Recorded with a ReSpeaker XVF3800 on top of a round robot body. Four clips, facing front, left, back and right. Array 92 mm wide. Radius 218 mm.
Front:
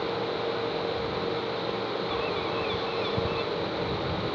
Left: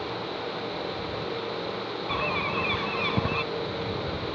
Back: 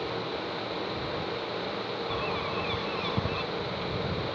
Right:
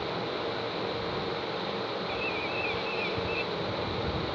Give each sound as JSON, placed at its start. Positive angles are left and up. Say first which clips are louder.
{"t": 2.1, "sound": "a bird", "louder": "left 4 dB, front 2 dB", "azimuth_deg": 95}